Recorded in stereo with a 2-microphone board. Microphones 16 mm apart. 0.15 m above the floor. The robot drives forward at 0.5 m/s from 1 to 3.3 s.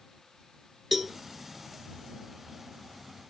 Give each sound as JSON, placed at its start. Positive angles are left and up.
{"t": 0.9, "sound": "a cowbell", "side_deg": -10, "distance_m": 0.6}